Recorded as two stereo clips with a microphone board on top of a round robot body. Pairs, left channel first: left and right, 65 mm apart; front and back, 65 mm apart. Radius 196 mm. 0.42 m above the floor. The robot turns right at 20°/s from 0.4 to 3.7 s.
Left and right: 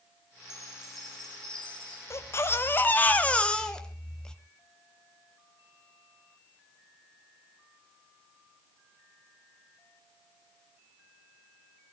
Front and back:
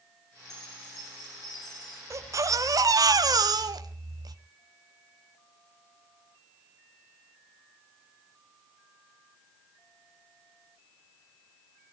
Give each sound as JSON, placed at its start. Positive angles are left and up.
{"t": 0.5, "sound": "a chime", "azimuth_deg": -10, "distance_m": 6.0}
{"t": 2.1, "sound": "a baby crying", "azimuth_deg": 135, "distance_m": 1.3}